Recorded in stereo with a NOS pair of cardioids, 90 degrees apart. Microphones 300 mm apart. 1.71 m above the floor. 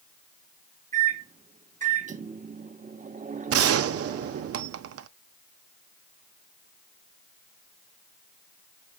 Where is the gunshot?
50° right, 0.6 m.